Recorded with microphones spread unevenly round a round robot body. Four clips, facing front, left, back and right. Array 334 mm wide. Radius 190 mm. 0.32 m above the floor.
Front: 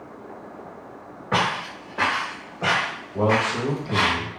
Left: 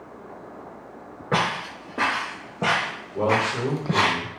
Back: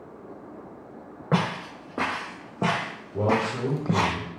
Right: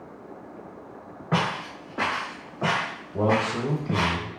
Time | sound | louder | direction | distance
1.3 | footsteps | left 2 dB, front 3 dB | 170° left | 2 m
3.1 | a man speaking | left 1 dB, front 3 dB | 110° right | 0.9 m